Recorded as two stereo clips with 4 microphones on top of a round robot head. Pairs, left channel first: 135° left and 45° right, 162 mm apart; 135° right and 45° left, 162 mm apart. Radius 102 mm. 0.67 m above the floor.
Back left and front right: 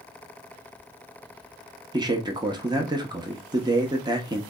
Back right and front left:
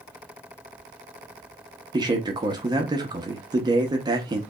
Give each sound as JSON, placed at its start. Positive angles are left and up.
{"t": 1.9, "sound": "a man speaking", "azimuth_deg": 0, "distance_m": 0.9}